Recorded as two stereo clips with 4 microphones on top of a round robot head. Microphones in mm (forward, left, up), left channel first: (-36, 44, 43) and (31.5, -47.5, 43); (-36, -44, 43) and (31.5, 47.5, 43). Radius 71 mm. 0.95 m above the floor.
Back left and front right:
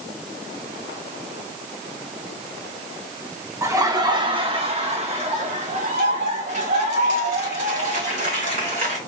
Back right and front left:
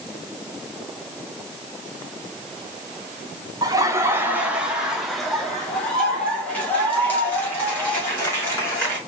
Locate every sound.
3.6 s laughter: 5° left, 1.1 m; by 9.0 s 60° right, 4 m